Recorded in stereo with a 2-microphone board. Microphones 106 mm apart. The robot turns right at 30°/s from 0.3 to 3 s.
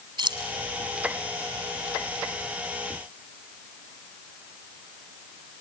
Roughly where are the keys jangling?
Right.